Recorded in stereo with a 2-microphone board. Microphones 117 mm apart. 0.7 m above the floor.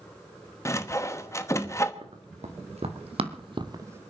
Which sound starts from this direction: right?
Running footsteps, at 2.0 s.